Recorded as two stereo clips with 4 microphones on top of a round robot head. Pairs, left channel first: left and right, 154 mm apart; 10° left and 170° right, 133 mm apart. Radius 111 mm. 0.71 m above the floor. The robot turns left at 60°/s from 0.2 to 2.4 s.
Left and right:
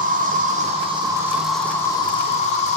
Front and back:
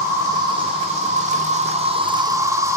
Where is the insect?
100° right, 1.1 m; by 2.8 s 130° left, 1.1 m.